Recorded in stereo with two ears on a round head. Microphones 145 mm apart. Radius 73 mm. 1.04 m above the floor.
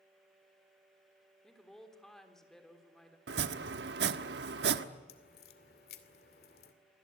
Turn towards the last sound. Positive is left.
turn(degrees=65)  # may be behind; listen again after turning